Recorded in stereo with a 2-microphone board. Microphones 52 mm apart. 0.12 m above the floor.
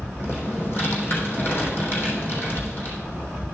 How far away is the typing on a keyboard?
About 3.5 m.